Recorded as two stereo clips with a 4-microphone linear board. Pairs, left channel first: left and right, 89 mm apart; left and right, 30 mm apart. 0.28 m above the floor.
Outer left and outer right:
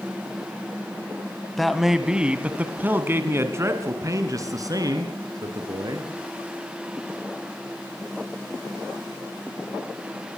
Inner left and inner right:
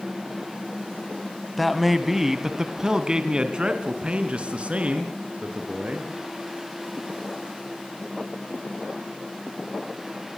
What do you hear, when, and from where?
1.6 s a man speaking: centre (ahead or behind), 2 m; by 6.1 s 50° right (ahead or behind), 4.5 m